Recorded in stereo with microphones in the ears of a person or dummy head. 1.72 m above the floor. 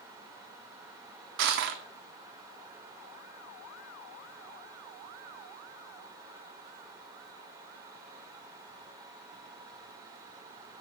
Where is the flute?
I don't hear a flute.